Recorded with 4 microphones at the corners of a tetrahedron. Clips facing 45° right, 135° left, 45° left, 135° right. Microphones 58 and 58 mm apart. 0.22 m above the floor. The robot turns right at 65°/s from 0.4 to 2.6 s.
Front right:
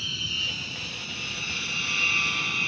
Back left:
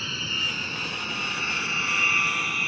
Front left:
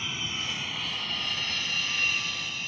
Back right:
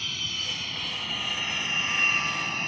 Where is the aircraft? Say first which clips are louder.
Back left 3 dB, even; 110° left; by 2.7 s 150° right.